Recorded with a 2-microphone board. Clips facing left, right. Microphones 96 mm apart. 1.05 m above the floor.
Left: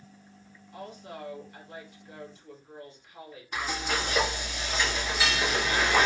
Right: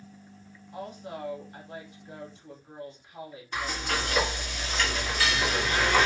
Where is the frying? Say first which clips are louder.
Even; 10° left (ahead or behind), 1.4 m.